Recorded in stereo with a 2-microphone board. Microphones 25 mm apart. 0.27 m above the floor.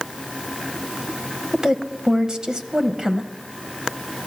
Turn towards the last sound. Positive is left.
turn(degrees=-30)  # may be behind; listen again after turning